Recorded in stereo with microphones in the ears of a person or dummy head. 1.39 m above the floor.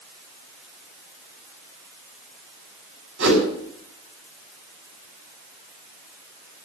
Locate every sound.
3.2 s a whoosh: 80° right, 8 m